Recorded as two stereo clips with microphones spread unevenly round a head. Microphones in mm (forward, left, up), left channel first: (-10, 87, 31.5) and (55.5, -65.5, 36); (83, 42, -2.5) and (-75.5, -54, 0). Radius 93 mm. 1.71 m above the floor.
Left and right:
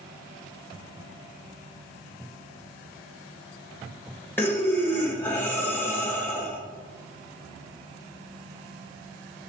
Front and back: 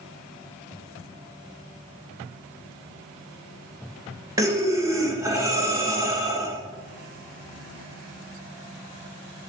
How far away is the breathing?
About 1.0 m.